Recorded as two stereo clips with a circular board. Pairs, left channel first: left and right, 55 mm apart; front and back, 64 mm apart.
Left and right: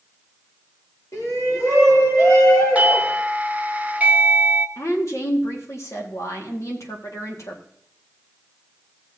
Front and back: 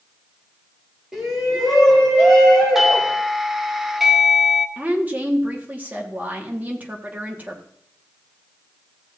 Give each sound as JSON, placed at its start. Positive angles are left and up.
{"t": 1.1, "sound": "a shout", "azimuth_deg": 95, "distance_m": 2.5}
{"t": 2.8, "sound": "a doorbell", "azimuth_deg": -95, "distance_m": 0.6}
{"t": 4.8, "sound": "a woman speaking", "azimuth_deg": 115, "distance_m": 1.6}